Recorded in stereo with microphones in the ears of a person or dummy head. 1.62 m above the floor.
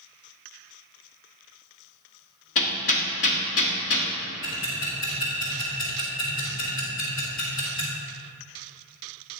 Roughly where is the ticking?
Left.